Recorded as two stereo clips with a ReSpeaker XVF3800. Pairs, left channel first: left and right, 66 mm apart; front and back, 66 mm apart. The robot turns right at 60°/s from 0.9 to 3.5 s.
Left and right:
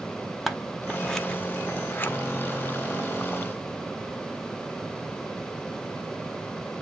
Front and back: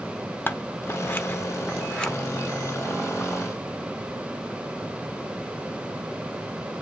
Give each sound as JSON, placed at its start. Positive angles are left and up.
{"t": 0.5, "sound": "scissors", "azimuth_deg": 0, "distance_m": 0.9}